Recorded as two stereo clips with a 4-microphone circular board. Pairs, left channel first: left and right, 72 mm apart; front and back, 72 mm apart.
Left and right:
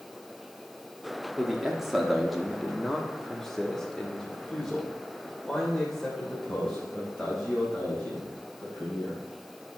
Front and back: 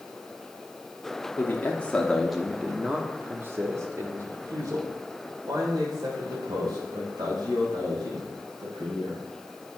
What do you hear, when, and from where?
1.4 s a man speaking: 10° right, 1.1 m; by 9.2 s 170° left, 4 m